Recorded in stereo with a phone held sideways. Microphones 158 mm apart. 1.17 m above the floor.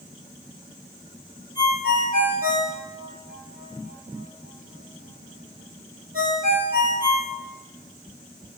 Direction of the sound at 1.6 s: 65° right (ahead or behind).